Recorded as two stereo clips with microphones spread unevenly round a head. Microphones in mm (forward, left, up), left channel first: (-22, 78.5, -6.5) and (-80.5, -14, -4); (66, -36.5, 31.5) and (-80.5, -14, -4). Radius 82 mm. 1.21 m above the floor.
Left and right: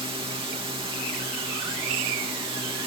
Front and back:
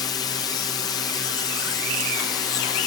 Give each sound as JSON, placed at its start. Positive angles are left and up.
{"t": 0.0, "sound": "a drone", "azimuth_deg": -80}